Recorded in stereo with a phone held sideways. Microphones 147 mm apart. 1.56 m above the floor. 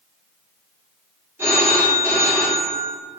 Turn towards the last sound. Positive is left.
turn(degrees=-15)  # may be behind; listen again after turning